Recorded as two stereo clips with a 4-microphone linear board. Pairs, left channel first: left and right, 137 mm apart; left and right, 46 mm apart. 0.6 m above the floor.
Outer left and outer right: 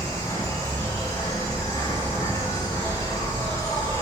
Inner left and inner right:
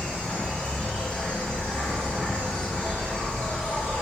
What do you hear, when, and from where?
0.0 s an insect: 25° left (ahead or behind), 4.5 m